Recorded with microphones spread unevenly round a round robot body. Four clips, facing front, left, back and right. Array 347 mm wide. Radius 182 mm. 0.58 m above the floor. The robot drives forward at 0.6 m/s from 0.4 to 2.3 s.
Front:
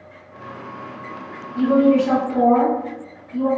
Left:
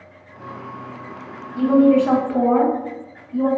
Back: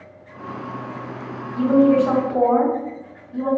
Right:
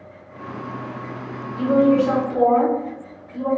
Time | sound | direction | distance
1.6 | a woman speaking | 100° left | 3.5 m